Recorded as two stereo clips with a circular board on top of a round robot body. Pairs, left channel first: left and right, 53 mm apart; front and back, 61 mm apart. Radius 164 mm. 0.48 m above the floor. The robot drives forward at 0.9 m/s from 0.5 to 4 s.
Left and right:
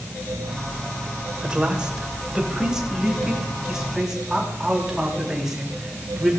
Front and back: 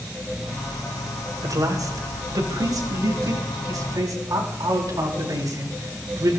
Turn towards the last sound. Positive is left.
turn(degrees=-170)